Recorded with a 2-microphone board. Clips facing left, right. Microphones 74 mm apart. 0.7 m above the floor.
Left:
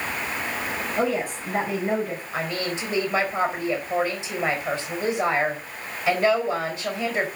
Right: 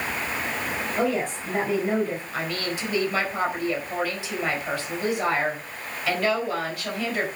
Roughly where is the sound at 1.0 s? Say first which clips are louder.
Even; centre.